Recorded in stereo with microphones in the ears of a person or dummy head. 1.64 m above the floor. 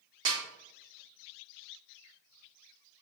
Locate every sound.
0.2 s a snare drum: 30° right (ahead or behind), 1.1 m